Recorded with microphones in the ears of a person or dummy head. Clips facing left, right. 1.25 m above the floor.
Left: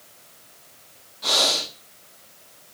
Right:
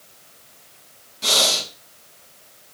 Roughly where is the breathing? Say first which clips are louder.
Right 1 dB; right.